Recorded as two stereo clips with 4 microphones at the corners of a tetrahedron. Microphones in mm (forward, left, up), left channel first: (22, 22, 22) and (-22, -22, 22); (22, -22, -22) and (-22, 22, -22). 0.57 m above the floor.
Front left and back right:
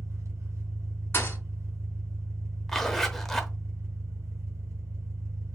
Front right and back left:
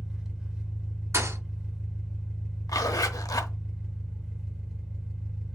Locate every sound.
0.0 s an engine running: 145° right, 1.5 m
1.1 s a thud: 95° left, 1.8 m
2.7 s a zipper: 40° right, 0.8 m